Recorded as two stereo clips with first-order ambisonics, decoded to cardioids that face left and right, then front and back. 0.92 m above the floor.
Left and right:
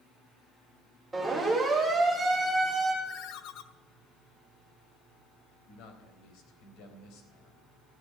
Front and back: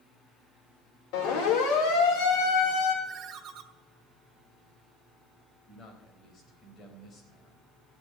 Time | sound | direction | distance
1.1 | a siren | 5° right | 4.5 m
3.0 | a ringtone | 125° left | 0.9 m
5.7 | a man speaking | 60° left | 3.5 m